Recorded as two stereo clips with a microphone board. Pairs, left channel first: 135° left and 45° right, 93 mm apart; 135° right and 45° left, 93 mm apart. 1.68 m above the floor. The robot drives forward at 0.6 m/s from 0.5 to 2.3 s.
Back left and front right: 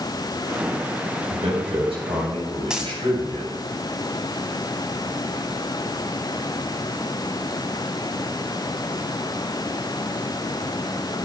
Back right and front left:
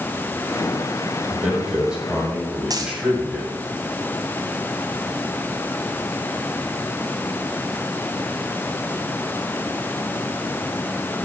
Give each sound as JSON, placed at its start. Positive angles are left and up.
{"t": 1.3, "sound": "a man speaking", "azimuth_deg": -35, "distance_m": 8.5}
{"t": 2.7, "sound": "a dropped coin", "azimuth_deg": 35, "distance_m": 2.0}